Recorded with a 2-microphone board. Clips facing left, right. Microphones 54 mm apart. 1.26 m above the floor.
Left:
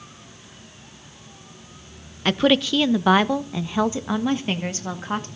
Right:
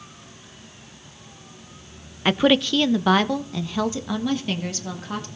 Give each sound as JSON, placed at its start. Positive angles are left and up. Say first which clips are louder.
{"t": 2.2, "sound": "a woman speaking", "louder": "even", "side_deg": -10, "distance_m": 0.7}